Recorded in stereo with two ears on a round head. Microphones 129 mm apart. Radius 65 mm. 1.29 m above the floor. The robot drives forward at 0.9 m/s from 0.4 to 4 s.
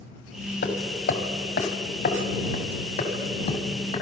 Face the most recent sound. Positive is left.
turn(degrees=40)  # may be behind; listen again after turning